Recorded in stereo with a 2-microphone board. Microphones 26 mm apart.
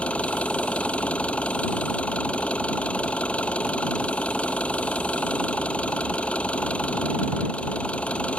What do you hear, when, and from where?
0.0 s an engine running: 60° left (ahead or behind)